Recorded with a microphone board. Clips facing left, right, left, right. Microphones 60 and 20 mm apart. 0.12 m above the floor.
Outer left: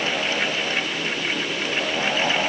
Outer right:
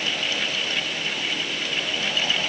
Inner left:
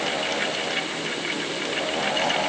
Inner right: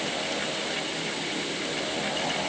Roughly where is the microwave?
I don't hear a microwave.